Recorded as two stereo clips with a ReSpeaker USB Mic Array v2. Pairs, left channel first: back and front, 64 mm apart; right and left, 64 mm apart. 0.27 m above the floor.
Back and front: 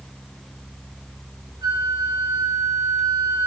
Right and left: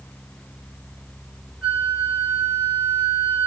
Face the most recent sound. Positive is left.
turn(degrees=-5)